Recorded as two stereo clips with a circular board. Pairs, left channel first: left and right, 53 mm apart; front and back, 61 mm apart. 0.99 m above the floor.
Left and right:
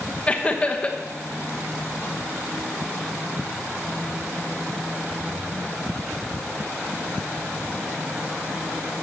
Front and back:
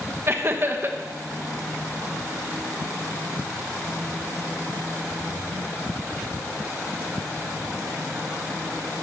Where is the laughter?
150° left, 1.1 m.